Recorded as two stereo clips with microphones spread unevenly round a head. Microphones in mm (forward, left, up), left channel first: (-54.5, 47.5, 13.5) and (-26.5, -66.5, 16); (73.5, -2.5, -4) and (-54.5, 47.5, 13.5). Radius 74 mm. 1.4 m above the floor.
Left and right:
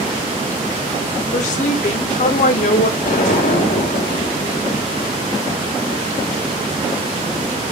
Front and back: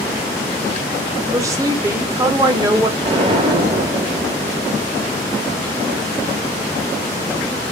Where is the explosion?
100° left, 1.0 m.